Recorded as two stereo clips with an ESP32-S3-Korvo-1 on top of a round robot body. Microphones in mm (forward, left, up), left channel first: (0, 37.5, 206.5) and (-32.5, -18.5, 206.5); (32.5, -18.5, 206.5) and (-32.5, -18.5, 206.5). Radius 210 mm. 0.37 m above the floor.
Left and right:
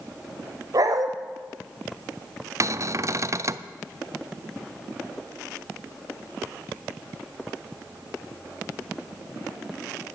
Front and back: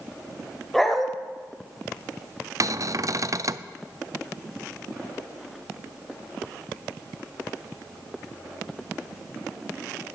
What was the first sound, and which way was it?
A dog barking, 85° right.